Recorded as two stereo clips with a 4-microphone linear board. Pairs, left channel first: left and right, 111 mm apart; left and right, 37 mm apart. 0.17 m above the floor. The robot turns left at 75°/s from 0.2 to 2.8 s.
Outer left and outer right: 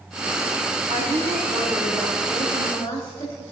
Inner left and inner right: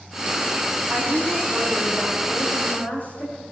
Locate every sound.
0.9 s a woman speaking: 85° right, 7 m; by 3.4 s 130° left, 7 m